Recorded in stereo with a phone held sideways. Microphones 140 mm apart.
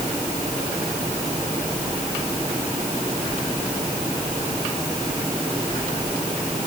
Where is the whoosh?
No whoosh in this recording.